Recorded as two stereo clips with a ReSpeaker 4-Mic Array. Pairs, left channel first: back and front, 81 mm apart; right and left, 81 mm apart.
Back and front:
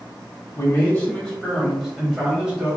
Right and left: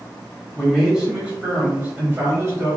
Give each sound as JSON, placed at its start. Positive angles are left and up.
{"t": 0.6, "sound": "a man speaking", "azimuth_deg": 170, "distance_m": 1.3}